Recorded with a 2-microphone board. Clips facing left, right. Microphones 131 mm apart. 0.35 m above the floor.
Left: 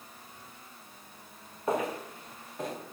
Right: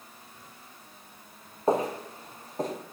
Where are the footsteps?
30° right (ahead or behind), 3.5 m; by 2.7 s 40° right (ahead or behind), 4 m.